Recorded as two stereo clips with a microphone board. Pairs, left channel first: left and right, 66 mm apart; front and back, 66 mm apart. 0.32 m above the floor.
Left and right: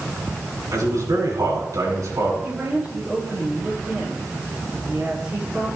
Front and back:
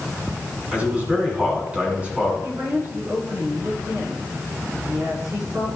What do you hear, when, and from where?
0.7 s a man speaking: 110° right, 2.5 m
2.4 s a woman speaking: 160° right, 4 m